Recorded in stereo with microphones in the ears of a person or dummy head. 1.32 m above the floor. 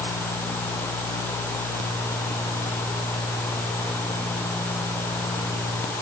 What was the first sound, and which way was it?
Only background noise.